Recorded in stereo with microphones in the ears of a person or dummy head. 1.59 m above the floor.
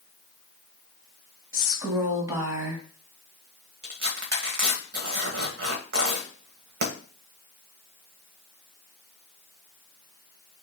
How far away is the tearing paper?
About 1.4 m.